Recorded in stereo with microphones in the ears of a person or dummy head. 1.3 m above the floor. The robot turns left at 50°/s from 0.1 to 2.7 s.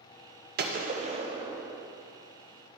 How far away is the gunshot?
About 0.8 m.